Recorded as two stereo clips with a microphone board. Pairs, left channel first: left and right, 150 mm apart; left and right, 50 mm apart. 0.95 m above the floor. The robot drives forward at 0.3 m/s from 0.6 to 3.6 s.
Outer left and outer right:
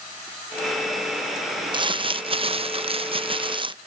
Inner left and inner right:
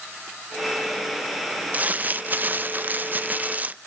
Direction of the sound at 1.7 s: 30° right (ahead or behind).